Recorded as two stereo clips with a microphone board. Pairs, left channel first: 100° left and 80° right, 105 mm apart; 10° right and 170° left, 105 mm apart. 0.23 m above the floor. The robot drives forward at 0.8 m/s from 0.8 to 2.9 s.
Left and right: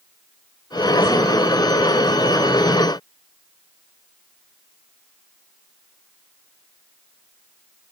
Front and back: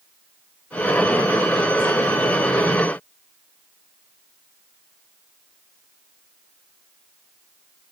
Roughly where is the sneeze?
I don't hear a sneeze.